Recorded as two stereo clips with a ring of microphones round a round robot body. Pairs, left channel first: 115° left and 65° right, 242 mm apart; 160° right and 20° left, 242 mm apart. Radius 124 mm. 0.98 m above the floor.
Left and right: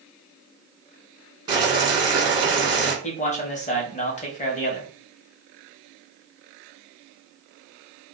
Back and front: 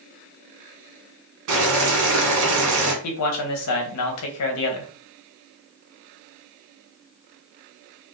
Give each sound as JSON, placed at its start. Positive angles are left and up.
{"t": 1.5, "sound": "boiling", "azimuth_deg": 5, "distance_m": 1.3}
{"t": 3.0, "sound": "a man speaking", "azimuth_deg": 175, "distance_m": 0.9}